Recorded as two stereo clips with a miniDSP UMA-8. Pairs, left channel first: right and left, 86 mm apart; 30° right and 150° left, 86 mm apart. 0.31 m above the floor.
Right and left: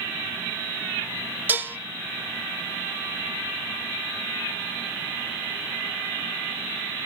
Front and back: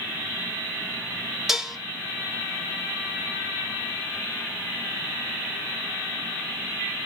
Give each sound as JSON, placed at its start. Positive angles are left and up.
{"t": 1.5, "sound": "dishes clattering", "azimuth_deg": 70, "distance_m": 0.8}